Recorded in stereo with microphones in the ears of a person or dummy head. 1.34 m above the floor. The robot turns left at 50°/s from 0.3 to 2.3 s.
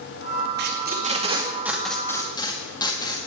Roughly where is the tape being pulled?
Right.